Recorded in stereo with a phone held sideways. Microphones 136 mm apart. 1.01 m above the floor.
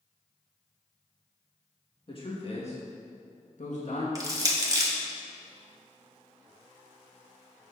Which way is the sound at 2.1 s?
40° left (ahead or behind).